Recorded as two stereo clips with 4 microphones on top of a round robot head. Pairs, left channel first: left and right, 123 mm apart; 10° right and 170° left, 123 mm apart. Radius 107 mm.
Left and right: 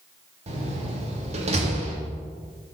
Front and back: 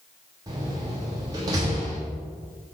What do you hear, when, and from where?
0.5 s a door slam: 125° right, 1.4 m